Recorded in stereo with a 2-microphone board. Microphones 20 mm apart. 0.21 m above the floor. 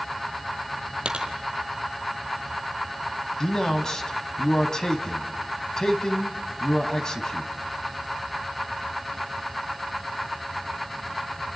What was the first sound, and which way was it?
A dropped coin, 50° right (ahead or behind).